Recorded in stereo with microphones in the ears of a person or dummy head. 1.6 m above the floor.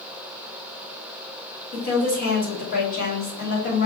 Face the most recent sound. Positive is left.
turn(degrees=50)  # may be behind; listen again after turning